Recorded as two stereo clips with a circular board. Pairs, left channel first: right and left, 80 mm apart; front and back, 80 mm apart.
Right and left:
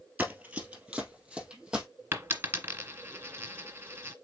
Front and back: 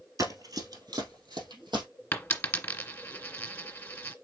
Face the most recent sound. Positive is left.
turn(degrees=50)